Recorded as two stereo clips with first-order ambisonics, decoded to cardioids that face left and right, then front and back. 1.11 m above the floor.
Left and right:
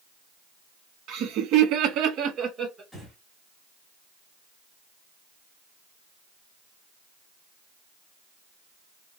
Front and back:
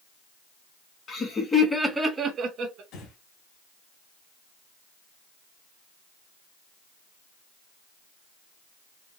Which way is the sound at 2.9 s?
Straight ahead.